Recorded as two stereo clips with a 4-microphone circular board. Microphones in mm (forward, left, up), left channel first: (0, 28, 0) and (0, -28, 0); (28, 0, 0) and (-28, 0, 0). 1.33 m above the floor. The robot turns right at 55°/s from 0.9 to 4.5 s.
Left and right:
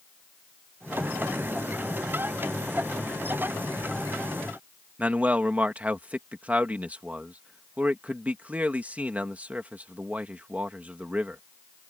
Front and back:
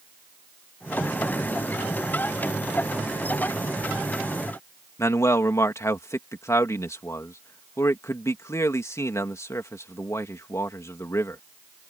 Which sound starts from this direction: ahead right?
A man speaking, at 5.0 s.